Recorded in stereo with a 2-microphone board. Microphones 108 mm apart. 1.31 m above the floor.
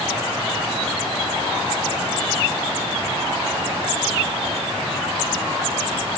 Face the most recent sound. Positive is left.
No sound to turn to.